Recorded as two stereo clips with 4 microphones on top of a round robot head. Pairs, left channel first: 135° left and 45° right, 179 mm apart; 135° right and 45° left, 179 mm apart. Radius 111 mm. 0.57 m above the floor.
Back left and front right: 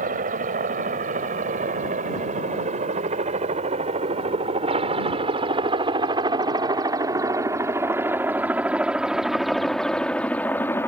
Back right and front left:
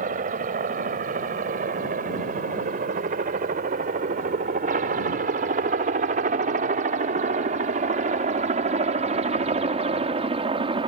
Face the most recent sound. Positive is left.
turn(degrees=70)